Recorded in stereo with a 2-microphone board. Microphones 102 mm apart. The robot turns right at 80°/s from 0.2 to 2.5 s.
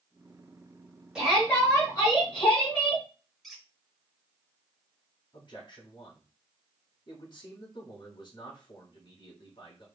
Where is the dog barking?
No dog barking in this recording.